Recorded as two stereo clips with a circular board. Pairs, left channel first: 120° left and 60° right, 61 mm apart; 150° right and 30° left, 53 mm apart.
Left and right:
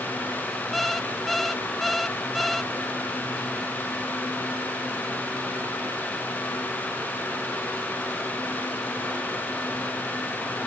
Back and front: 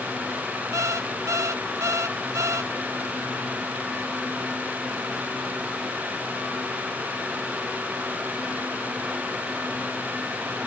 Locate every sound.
0.7 s an alarm clock: 30° left